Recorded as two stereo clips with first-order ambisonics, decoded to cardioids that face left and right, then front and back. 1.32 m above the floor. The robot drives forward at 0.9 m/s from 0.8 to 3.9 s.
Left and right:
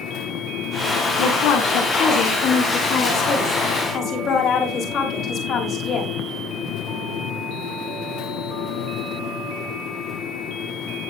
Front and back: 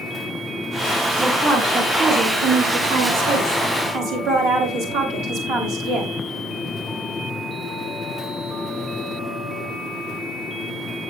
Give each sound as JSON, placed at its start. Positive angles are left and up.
{"t": 1.2, "sound": "a woman speaking", "azimuth_deg": 95, "distance_m": 1.6}